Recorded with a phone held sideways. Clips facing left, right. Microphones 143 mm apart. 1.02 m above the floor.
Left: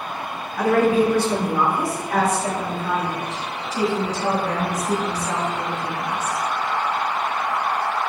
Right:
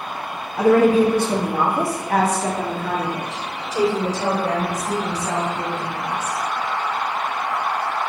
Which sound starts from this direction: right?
A woman speaking, at 0.6 s.